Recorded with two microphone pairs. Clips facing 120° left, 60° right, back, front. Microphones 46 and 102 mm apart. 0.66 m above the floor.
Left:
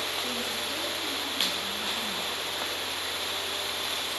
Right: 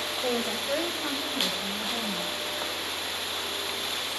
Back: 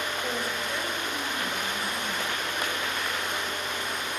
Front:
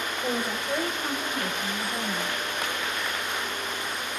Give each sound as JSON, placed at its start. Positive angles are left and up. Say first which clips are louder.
{"t": 0.2, "sound": "a woman speaking", "louder": "right 4 dB, front 2 dB", "azimuth_deg": -70, "distance_m": 3.0}